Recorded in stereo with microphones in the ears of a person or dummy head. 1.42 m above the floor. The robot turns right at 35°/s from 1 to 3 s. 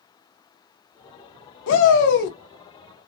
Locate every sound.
1.7 s a shout: 70° left (ahead or behind), 0.7 m; by 2.4 s 45° left (ahead or behind), 0.7 m